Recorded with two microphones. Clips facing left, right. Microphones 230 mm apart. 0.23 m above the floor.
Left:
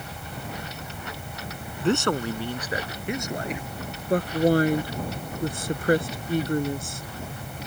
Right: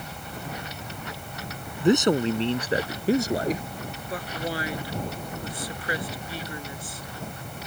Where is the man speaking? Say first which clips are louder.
Right 4 dB; 15° right (ahead or behind); by 3.6 s 40° right (ahead or behind).